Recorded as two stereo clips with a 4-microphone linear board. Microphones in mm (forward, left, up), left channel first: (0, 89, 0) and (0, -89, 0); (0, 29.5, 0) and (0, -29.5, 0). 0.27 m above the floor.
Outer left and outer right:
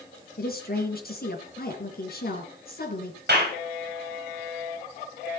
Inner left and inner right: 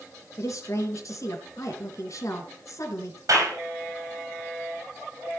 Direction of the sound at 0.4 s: 60° left (ahead or behind).